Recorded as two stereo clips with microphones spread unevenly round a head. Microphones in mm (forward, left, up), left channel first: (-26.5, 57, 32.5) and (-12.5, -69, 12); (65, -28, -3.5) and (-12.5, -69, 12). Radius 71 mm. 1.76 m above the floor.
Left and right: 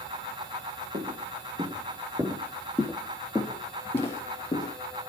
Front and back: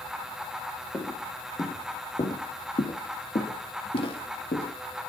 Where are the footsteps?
35° right, 4.5 m; by 4.7 s 40° left, 4 m.